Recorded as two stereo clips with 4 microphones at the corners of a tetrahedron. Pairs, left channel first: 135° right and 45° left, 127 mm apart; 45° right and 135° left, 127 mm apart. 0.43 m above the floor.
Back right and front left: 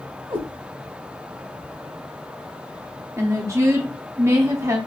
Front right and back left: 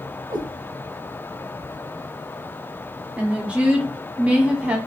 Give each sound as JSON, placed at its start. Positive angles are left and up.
{"t": 0.3, "sound": "a cat meowing", "azimuth_deg": 90, "distance_m": 1.0}
{"t": 3.2, "sound": "a woman speaking", "azimuth_deg": 70, "distance_m": 1.0}